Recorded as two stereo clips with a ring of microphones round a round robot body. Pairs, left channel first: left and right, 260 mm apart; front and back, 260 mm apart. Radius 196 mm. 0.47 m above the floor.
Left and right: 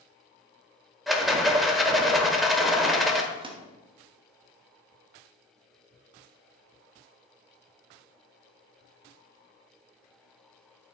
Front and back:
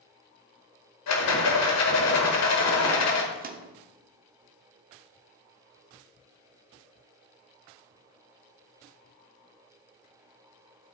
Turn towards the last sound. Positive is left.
turn(degrees=-150)